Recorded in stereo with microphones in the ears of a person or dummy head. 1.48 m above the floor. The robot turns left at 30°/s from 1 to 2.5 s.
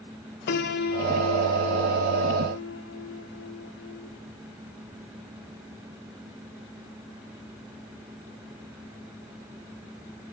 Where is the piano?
120° left, 1.3 m; by 4.1 s 75° left, 1.3 m.